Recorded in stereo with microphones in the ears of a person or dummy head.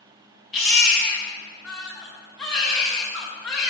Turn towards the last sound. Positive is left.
turn(degrees=0)  # may be behind; listen again after turning